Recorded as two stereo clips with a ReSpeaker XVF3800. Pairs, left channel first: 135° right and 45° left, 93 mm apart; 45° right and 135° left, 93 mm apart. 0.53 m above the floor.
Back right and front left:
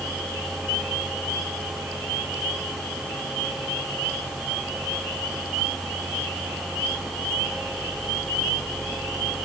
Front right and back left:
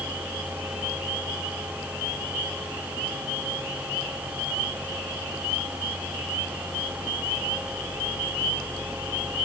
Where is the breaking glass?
No breaking glass in this recording.